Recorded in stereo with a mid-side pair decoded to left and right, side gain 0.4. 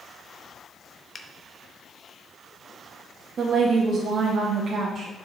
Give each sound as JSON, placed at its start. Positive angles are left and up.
{"t": 1.1, "sound": "a finger snap", "azimuth_deg": 40, "distance_m": 0.7}
{"t": 3.4, "sound": "a woman speaking", "azimuth_deg": -55, "distance_m": 1.4}